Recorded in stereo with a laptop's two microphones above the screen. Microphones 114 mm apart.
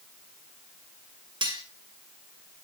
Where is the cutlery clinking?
45° right (ahead or behind), 2.5 m.